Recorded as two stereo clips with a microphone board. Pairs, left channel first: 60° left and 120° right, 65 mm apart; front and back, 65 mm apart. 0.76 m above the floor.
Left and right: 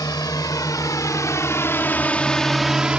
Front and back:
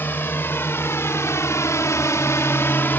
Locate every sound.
0.0 s a drone: 55° left; by 3.0 s 50° right